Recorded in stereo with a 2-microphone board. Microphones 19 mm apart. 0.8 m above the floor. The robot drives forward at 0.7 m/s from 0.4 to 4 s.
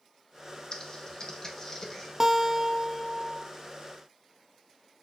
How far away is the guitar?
About 0.5 m.